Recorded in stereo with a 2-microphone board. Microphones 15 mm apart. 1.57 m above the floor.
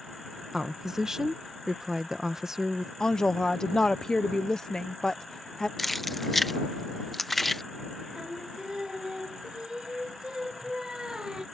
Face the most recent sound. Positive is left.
turn(degrees=-65)  # may be behind; listen again after turning